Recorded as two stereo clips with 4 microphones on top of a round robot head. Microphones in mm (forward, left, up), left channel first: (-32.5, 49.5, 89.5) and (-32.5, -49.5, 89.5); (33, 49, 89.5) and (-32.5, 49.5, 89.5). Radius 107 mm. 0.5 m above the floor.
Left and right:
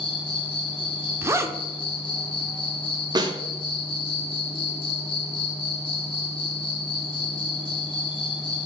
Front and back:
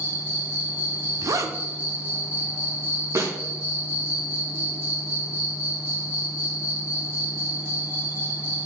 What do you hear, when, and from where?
0.0 s an insect: 125° left, 1.3 m
1.2 s a zipper: 150° right, 0.8 m
3.1 s a snare drum: 135° right, 1.2 m